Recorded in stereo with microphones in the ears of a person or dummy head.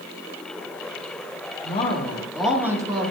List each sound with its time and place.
1.6 s a woman speaking: 35° left (ahead or behind), 1.5 m; by 3.1 s 20° right (ahead or behind), 1.7 m